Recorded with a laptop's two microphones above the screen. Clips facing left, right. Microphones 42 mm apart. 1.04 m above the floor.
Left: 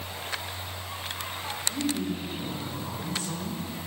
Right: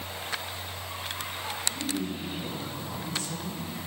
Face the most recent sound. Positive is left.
turn(degrees=30)  # may be behind; listen again after turning